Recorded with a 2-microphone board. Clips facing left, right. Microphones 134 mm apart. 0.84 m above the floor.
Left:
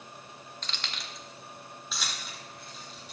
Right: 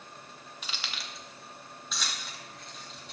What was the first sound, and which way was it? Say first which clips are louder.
Keys jangling: even; 10° right (ahead or behind).